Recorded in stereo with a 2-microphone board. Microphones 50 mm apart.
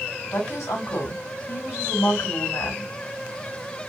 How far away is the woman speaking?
About 3 m.